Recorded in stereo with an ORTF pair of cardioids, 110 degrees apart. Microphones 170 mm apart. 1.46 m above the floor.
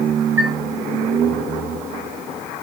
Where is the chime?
35° right, 4.5 m.